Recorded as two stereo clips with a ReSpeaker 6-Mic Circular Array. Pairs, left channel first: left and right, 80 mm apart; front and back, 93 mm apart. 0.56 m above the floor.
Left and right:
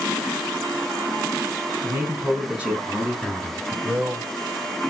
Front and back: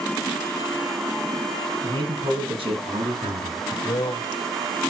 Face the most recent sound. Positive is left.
turn(degrees=-20)